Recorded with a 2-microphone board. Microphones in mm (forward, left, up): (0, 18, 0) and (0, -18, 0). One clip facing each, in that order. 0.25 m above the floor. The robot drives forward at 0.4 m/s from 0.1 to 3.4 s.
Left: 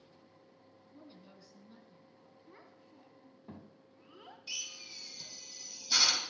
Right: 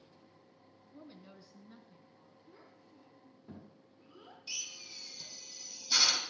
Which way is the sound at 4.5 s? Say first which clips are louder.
Left 1 dB; 15° left (ahead or behind).